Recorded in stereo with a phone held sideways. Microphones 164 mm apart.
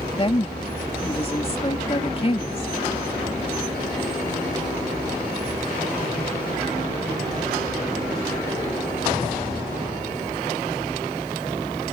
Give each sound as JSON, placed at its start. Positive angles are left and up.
{"t": 0.2, "sound": "a woman speaking", "side_deg": 35}